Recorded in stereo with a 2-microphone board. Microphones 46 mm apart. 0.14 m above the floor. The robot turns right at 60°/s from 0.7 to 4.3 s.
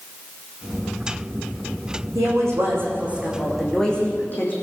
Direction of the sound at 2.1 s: 85° right.